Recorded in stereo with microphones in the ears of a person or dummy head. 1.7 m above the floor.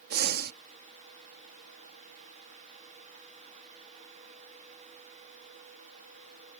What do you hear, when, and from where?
0.1 s breathing: 50° right (ahead or behind)